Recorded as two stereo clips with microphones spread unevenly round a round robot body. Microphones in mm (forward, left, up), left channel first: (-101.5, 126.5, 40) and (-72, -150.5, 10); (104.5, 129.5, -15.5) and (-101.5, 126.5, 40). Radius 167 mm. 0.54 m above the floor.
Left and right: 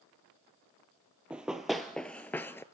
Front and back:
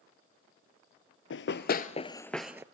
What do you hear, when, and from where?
1.3 s running footsteps: 10° left, 0.6 m; by 2.6 s 160° left, 0.5 m